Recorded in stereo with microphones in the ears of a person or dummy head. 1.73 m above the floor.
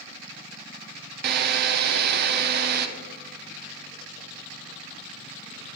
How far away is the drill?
About 1.3 m.